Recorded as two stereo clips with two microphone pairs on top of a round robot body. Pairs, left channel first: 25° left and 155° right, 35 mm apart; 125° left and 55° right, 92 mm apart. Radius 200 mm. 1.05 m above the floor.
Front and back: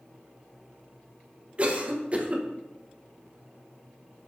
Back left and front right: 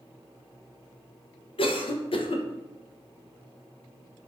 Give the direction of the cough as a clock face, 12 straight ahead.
7 o'clock.